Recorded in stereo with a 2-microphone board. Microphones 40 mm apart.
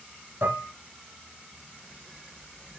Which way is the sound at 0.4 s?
80° right.